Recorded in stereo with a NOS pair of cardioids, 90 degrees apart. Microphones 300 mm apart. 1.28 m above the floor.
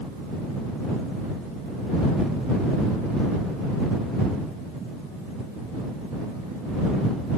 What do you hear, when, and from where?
Only background noise.